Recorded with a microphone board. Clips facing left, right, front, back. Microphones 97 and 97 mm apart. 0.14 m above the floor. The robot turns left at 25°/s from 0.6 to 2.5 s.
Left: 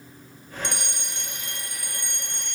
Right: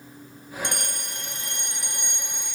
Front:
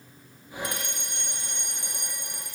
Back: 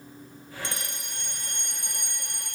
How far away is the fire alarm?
About 5.5 m.